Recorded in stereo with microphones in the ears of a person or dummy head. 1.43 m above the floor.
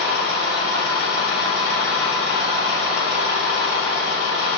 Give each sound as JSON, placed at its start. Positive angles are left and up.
{"t": 0.0, "sound": "a machine running", "side_deg": -15, "distance_m": 1.6}